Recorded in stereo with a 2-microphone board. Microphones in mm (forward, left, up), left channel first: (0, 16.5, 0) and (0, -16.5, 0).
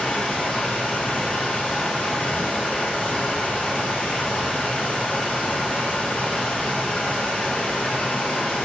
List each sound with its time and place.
0.0 s running water: 30° left (ahead or behind), 1.1 m